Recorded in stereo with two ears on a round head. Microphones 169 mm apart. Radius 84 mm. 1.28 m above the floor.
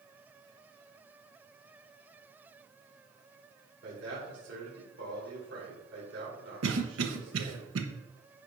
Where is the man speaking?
65° right (ahead or behind), 4.5 m.